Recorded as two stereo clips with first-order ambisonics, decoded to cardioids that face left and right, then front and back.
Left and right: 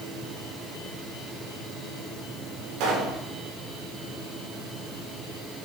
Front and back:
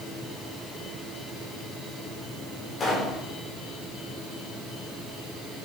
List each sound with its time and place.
2.8 s a pop: 70° right, 5.5 m